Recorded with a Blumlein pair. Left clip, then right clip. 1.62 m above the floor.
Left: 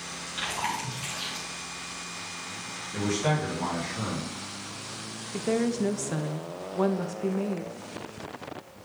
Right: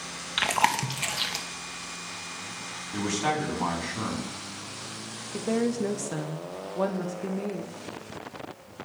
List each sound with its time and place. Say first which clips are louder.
0.4 s chewing: right 7 dB; 55° right, 1.0 m
2.9 s a man speaking: even; 15° right, 3 m
5.3 s a woman speaking: even; 5° left, 0.5 m